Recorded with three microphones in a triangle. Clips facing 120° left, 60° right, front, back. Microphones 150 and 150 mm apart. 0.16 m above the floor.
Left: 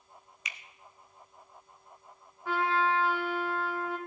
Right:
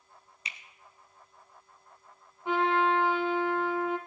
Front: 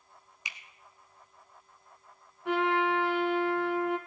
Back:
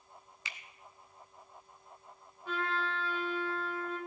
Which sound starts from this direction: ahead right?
A finger snap, at 0.5 s.